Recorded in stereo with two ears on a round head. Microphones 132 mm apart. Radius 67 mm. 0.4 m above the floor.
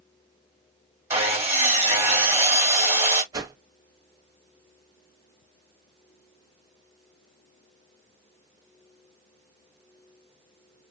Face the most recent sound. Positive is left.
turn(degrees=-25)  # may be behind; listen again after turning